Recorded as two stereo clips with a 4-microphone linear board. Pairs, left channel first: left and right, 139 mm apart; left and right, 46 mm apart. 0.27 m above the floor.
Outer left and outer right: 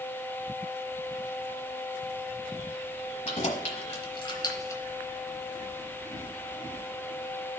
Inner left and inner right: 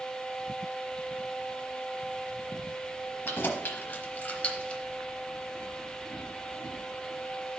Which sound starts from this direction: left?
Keys jangling, at 3.2 s.